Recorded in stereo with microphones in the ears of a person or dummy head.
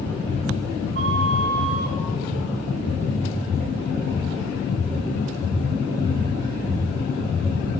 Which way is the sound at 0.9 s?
65° right (ahead or behind).